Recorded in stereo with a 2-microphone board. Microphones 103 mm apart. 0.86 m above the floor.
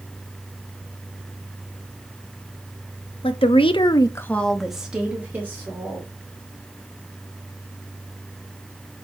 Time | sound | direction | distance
3.2 | a woman speaking | 60° left (ahead or behind) | 1.1 m